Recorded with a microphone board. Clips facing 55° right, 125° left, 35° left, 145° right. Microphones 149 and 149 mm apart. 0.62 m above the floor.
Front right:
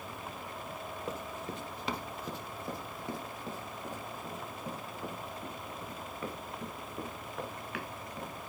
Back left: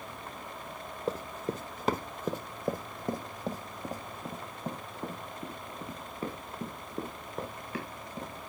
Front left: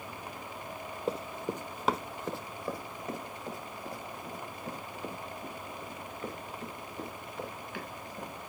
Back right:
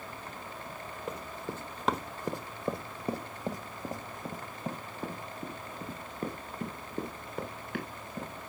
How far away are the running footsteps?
About 0.9 m.